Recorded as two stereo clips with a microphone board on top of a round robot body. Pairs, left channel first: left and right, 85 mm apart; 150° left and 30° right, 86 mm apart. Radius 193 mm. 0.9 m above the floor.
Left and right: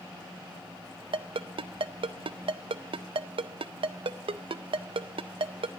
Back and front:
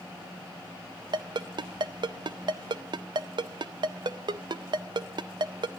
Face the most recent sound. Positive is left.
turn(degrees=-65)